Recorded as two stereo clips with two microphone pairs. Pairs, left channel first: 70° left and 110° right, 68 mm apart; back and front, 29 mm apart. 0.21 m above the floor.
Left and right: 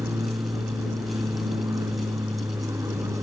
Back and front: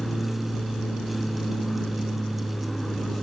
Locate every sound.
0.0 s an aircraft: 100° right